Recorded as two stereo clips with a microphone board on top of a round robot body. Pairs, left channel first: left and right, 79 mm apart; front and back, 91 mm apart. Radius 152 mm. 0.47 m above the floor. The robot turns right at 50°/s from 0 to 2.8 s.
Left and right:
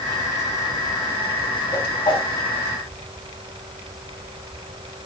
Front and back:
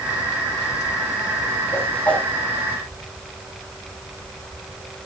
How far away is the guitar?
No guitar in this recording.